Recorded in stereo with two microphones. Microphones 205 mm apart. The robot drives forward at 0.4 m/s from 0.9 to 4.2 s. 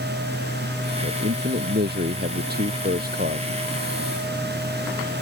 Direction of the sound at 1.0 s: 55° right (ahead or behind).